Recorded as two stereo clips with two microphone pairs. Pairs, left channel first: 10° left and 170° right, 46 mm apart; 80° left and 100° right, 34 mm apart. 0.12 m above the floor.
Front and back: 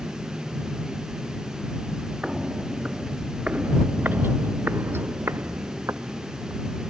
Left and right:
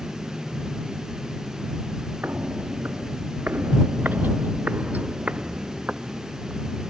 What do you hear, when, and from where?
2.2 s footsteps: 95° right; by 6.6 s 160° right